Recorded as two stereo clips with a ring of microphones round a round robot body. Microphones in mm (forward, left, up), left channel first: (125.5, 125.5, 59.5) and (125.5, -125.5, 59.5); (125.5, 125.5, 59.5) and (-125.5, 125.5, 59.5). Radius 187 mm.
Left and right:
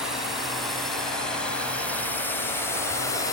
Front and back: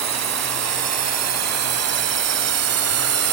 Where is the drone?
Straight behind; by 3.3 s 170° left.